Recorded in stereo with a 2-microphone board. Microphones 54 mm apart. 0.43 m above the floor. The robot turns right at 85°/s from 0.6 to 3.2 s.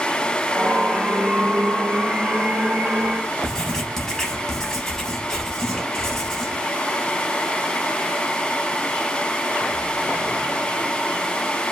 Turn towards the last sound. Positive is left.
turn(degrees=10)  # may be behind; listen again after turning